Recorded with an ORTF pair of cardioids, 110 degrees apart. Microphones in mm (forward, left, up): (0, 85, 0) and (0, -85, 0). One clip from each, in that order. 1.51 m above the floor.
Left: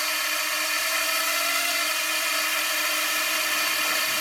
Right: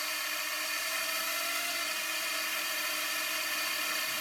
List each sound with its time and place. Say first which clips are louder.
0.0 s a drone: left 9 dB; 55° left